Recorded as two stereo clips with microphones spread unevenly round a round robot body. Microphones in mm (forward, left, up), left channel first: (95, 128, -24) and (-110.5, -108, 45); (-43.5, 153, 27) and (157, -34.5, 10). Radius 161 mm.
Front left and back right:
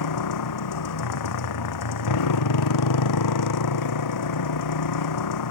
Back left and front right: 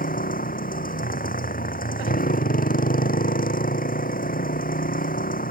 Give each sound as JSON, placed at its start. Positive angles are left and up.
{"t": 0.0, "sound": "a motorcycle", "azimuth_deg": 80}